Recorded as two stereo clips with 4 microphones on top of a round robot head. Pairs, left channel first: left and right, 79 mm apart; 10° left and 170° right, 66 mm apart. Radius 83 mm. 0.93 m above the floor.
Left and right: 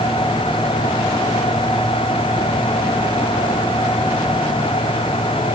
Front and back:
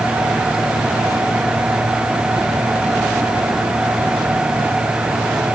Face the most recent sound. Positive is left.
No sound to turn to.